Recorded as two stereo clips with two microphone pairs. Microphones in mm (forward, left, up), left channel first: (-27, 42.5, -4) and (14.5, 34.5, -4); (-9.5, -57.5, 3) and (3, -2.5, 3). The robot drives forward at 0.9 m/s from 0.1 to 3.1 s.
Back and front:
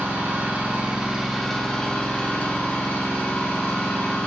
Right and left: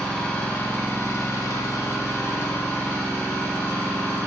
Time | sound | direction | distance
0.0 | an engine running | 40° right | 1.5 m